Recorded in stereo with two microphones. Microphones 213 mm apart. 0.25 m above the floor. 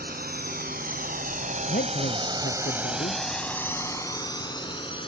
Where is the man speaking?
45° left (ahead or behind).